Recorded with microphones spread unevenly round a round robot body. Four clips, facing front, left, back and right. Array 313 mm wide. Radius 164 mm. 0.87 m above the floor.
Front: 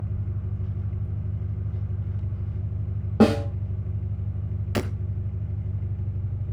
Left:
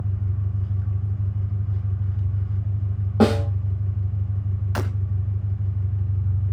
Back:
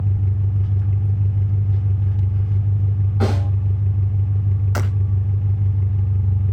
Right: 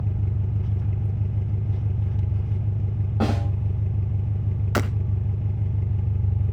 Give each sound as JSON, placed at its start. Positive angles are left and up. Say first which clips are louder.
{"t": 0.0, "sound": "an engine running", "louder": "right 1 dB, back 9 dB", "azimuth_deg": -140, "distance_m": 2.0}
{"t": 3.2, "sound": "a snare drum", "louder": "left 7 dB, front 6 dB", "azimuth_deg": 35, "distance_m": 2.5}
{"t": 4.8, "sound": "breaking glass", "louder": "right 4 dB, front 2 dB", "azimuth_deg": -60, "distance_m": 0.8}